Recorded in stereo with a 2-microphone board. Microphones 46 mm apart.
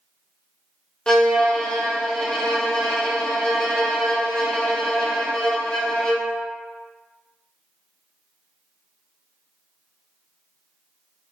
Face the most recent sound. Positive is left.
turn(degrees=15)  # may be behind; listen again after turning